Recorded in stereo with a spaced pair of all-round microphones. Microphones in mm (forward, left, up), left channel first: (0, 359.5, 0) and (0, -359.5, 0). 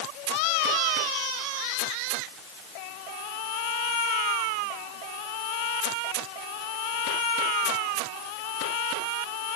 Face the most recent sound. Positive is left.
No sound to turn to.